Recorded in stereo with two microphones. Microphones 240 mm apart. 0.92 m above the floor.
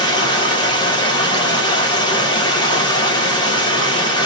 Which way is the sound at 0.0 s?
15° left (ahead or behind).